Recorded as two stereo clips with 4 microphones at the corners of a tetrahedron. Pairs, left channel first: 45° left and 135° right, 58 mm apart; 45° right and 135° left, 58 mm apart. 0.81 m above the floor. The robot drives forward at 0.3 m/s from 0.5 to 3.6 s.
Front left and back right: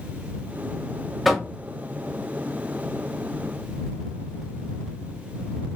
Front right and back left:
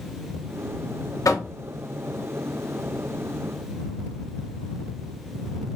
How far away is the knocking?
About 0.6 m.